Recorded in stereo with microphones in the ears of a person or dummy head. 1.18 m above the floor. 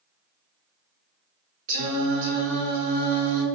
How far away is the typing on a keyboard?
I don't hear typing on a keyboard.